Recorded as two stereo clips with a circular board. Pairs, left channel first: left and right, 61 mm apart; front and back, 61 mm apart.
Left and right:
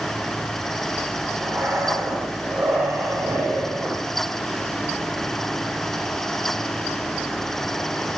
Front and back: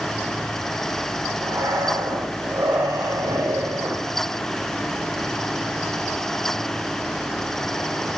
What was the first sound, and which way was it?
Breathing, 170° right.